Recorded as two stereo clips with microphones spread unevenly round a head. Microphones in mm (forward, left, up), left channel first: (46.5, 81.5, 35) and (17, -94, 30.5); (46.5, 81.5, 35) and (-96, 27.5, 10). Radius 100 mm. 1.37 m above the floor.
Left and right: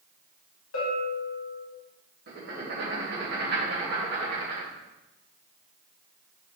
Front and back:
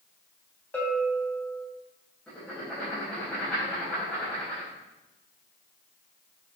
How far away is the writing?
About 2 m.